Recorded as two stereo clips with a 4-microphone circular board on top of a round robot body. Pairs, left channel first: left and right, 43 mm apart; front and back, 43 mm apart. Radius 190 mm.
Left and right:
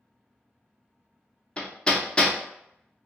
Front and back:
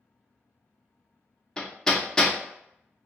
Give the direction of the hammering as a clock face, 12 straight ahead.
10 o'clock.